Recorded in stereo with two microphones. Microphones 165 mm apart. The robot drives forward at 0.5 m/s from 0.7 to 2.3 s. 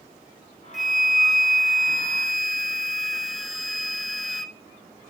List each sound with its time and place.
0.7 s a flute: centre (ahead or behind), 1.4 m